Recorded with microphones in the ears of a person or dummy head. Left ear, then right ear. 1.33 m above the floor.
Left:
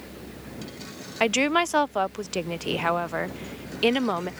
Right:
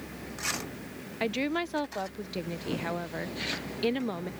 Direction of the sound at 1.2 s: 40° left (ahead or behind).